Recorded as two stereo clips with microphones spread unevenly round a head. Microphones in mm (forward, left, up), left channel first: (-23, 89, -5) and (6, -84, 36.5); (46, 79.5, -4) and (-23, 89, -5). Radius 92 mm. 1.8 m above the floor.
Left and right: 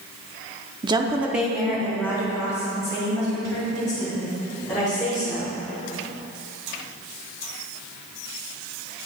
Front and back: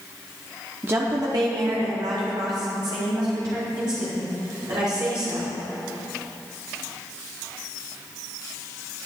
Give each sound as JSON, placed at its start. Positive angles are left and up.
{"t": 0.8, "sound": "a woman speaking", "azimuth_deg": -120, "distance_m": 0.8}